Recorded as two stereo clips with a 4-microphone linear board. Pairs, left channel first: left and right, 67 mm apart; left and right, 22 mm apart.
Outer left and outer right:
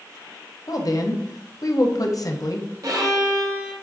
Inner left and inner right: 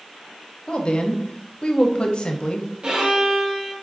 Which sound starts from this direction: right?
A violin, at 2.8 s.